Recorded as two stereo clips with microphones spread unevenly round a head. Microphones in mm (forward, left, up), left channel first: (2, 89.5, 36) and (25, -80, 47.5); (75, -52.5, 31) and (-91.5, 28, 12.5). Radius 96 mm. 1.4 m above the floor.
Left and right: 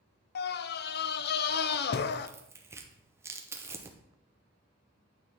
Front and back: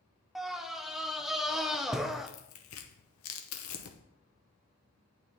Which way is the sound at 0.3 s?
65° left.